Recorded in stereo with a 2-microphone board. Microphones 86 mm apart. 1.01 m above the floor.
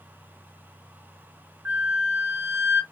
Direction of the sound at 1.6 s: 30° right (ahead or behind).